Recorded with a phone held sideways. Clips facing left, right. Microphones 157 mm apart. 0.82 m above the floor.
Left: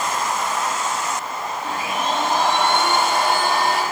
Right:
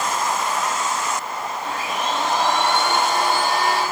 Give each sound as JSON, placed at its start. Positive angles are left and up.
{"t": 1.6, "sound": "a blender", "side_deg": 60, "distance_m": 6.5}